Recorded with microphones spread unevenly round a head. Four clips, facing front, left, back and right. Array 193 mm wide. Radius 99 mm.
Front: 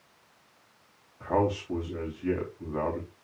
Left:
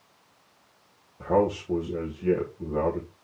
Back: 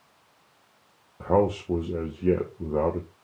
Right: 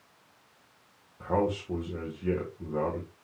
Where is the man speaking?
165° left, 1.4 m.